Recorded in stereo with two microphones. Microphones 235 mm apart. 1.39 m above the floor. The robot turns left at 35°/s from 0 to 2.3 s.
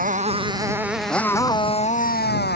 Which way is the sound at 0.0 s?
145° right.